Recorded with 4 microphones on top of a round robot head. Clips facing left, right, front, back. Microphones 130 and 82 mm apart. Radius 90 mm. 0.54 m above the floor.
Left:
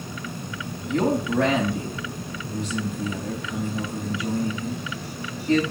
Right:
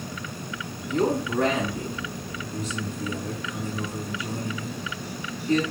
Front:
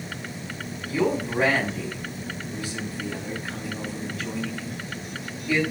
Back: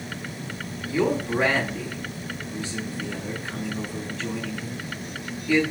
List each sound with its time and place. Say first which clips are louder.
0.9 s a man speaking: left 2 dB, back 1 dB; 80° left, 4 m